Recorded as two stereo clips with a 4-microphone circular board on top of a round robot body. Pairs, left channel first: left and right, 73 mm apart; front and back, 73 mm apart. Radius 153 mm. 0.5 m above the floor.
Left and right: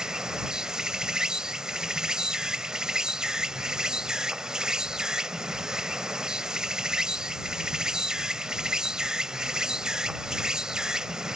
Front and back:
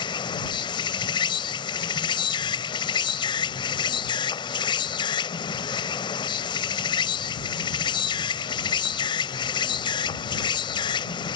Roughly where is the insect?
Ahead.